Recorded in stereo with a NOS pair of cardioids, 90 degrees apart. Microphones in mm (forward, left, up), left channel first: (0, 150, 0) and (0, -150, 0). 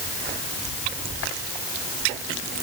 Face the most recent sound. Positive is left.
No sound to turn to.